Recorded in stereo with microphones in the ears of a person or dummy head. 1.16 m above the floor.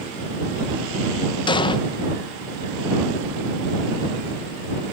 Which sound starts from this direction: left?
An explosion, at 1.5 s.